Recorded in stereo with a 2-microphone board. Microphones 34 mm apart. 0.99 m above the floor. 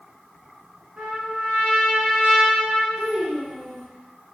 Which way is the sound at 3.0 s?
40° right (ahead or behind).